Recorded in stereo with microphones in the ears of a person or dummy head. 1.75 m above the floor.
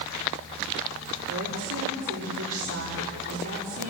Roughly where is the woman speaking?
Right.